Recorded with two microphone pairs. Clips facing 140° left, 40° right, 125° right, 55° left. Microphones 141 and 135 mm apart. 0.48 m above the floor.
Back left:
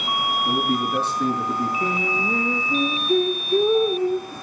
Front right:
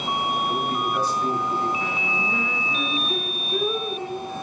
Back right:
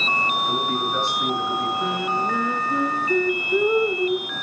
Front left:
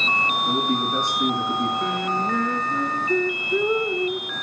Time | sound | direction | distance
0.5 | a man speaking | 125° left | 7.5 m
1.8 | singing | 155° left | 1.5 m